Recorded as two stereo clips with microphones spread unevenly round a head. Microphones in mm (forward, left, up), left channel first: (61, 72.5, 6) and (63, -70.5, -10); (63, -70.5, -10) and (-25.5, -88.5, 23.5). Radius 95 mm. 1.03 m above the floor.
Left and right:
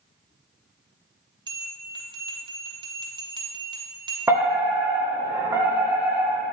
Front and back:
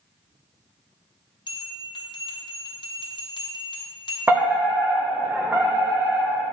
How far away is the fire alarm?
About 1.1 m.